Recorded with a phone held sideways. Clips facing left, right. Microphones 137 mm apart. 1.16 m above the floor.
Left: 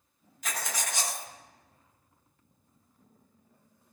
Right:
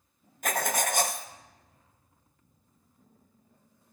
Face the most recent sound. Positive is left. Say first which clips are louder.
# right 8 dB
turn(degrees=-55)  # may be behind; listen again after turning